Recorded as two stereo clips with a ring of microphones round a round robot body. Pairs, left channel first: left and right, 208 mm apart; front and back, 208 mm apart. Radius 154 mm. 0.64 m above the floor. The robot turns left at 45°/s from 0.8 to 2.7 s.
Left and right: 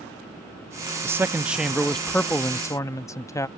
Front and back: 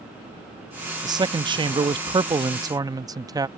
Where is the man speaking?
145° right; by 3.5 s 140° left.